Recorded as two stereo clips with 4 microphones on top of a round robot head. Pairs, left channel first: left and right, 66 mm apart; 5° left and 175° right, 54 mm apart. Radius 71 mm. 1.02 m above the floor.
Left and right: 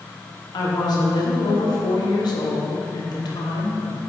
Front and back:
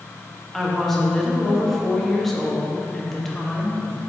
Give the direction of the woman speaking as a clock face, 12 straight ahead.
9 o'clock.